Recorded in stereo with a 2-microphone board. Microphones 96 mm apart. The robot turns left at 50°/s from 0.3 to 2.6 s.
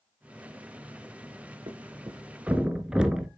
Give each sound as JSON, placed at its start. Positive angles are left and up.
{"t": 1.7, "sound": "a thud", "side_deg": -55, "distance_m": 1.3}